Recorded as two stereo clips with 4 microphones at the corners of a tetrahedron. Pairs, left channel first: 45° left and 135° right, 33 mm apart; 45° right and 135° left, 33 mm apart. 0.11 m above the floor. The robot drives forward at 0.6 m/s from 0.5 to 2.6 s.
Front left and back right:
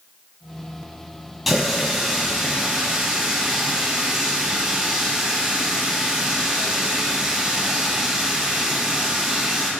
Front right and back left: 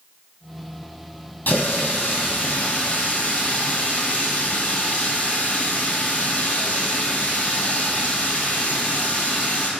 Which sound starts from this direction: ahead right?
A running tap, at 1.5 s.